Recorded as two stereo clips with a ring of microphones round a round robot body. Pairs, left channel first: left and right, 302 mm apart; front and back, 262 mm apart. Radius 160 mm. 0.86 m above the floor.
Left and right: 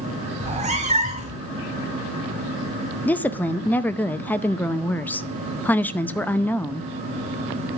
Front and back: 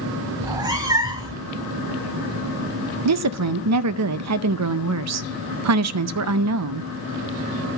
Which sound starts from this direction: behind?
A woman speaking, at 3.0 s.